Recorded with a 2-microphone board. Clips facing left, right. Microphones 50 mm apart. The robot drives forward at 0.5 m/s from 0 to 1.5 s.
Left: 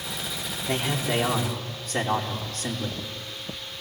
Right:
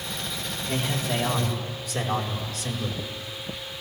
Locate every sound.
0.7 s a man speaking: 50° left (ahead or behind), 4 m; by 3.0 s 45° left (ahead or behind), 4.5 m